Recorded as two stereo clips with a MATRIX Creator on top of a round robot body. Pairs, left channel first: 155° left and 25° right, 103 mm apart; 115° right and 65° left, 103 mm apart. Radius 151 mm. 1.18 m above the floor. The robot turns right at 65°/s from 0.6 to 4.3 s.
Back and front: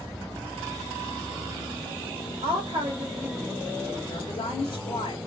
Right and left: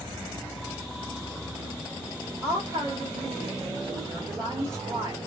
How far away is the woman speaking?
About 1.6 m.